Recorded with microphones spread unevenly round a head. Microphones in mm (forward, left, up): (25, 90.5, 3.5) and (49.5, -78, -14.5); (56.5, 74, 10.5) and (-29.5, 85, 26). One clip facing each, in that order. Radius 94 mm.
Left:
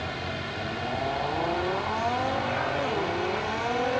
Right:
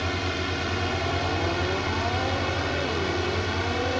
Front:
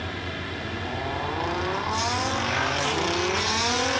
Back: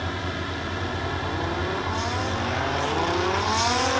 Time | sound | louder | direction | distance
0.0 | a drone | right 4 dB, back 3 dB | 115° right | ?